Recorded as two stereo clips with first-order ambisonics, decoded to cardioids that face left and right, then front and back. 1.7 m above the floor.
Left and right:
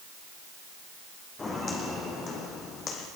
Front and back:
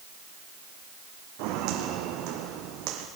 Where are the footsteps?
160° left, 4 m; by 3.1 s 150° left, 4 m.